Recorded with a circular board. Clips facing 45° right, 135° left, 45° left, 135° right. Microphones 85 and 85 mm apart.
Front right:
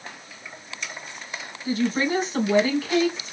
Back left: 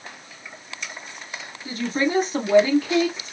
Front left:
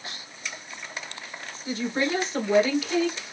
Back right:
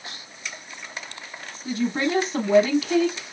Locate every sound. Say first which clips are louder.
1.6 s a woman speaking: front right 1 dB, back right 2 dB; straight behind, 3 m